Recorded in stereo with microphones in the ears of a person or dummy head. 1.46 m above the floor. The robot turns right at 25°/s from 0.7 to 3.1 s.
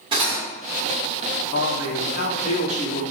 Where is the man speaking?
115° left, 1.0 m; by 3.0 s 150° left, 1.0 m.